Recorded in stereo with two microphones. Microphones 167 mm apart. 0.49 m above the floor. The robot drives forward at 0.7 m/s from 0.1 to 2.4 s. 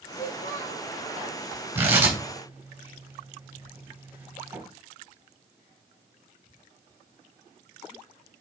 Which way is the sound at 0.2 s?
60° left (ahead or behind).